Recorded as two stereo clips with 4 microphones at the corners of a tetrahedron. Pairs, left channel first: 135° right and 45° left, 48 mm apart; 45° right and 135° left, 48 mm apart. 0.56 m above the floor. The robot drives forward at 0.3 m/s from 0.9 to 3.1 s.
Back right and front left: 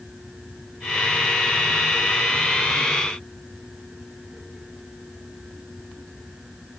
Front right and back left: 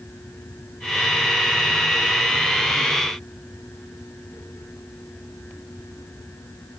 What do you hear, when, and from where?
Only background noise.